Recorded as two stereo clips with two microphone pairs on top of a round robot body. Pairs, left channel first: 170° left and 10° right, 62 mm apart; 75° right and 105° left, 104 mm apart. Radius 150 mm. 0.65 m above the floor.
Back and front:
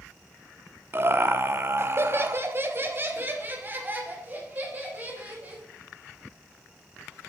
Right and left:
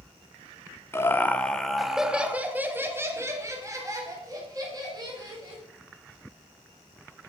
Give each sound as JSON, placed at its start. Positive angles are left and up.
{"t": 0.9, "sound": "laughter", "azimuth_deg": -30, "distance_m": 1.1}